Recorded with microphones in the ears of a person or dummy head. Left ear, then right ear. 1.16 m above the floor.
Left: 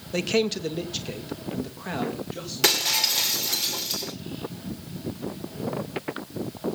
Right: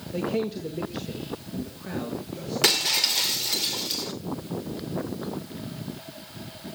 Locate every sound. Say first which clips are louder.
0.1 s a man speaking: left 4 dB; 50° left (ahead or behind), 0.7 m; by 3.6 s 30° left (ahead or behind), 3.5 m
2.6 s breaking glass: even; centre (ahead or behind), 1.9 m